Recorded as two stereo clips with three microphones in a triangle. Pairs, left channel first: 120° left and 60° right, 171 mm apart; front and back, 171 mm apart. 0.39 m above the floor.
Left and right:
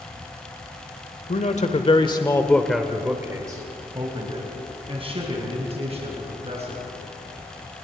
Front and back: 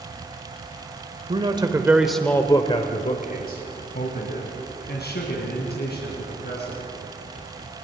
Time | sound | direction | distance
1.3 | a man speaking | 140° left | 1.4 m